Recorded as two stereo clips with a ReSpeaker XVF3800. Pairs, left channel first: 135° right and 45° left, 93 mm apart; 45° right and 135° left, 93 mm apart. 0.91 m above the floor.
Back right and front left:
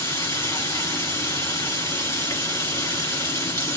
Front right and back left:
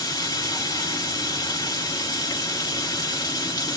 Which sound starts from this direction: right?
Running water, at 0.0 s.